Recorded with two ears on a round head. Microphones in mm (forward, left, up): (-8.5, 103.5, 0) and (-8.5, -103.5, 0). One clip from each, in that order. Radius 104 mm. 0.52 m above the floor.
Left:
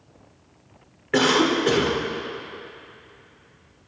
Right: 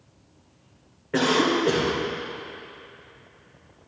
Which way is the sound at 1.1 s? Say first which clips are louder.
Left 2 dB; 55° left (ahead or behind).